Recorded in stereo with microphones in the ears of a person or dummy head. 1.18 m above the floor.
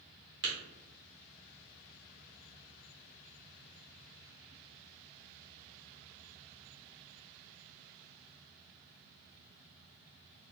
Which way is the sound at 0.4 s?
60° right (ahead or behind).